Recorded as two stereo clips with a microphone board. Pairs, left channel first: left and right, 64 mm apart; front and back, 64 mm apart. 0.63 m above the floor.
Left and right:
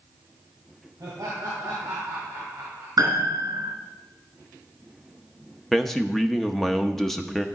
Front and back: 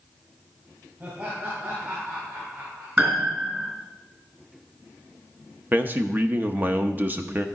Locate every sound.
1.0 s laughter: 120° right, 4.5 m; by 2.9 s 135° right, 3.5 m
3.0 s a piano: 120° right, 3 m
5.7 s a man speaking: 170° left, 0.7 m